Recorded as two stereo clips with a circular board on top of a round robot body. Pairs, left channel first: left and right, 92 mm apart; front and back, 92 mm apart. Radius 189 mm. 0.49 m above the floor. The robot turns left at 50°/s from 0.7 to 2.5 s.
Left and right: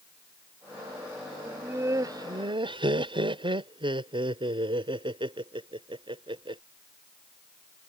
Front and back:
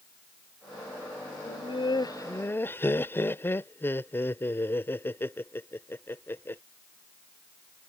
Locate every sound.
1.4 s laughter: 10° right; by 6.6 s 65° right